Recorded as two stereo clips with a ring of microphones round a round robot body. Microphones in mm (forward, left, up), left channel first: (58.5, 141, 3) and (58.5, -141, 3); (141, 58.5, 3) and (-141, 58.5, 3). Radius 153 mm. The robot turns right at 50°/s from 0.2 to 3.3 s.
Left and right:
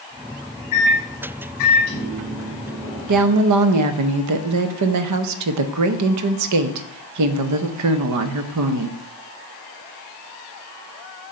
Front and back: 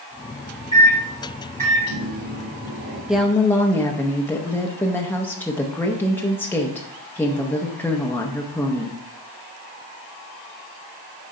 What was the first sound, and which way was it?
A microwave, 75° left.